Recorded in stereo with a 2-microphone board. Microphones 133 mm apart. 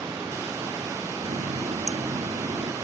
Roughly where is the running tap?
Right.